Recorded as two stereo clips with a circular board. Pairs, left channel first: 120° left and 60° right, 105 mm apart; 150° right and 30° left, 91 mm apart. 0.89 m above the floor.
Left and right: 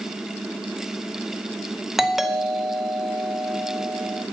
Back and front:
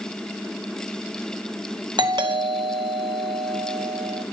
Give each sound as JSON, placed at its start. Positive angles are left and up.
{"t": 2.0, "sound": "a doorbell", "azimuth_deg": 30, "distance_m": 1.1}